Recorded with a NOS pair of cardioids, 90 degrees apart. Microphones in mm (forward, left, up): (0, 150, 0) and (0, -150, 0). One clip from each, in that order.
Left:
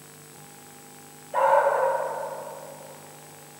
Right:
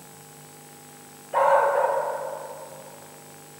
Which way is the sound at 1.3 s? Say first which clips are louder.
Right 1 dB; 25° right.